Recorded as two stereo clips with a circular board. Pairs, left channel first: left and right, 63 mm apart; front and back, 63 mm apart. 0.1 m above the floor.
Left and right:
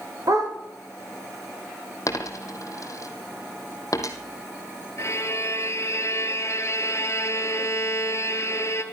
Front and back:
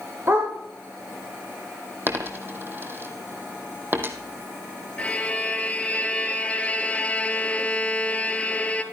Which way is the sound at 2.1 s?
125° left.